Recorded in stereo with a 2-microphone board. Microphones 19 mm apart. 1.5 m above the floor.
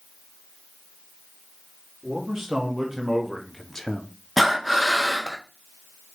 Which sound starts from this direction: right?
A man speaking, at 2.0 s.